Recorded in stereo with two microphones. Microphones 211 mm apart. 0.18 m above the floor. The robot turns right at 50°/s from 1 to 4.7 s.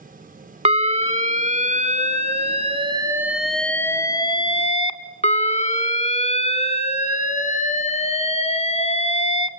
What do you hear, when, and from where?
0.7 s an alarm: 125° right, 0.8 m; by 9.5 s 60° left, 0.8 m